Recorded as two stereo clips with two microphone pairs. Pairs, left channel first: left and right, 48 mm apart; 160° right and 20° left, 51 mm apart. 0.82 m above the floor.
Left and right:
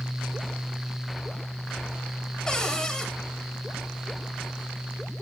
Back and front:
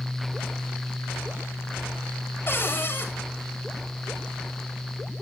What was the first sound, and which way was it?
A cupboard door, 165° left.